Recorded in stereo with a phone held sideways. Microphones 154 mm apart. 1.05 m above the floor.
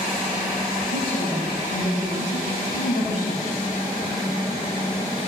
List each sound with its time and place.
0.9 s a woman speaking: 50° left (ahead or behind), 4.5 m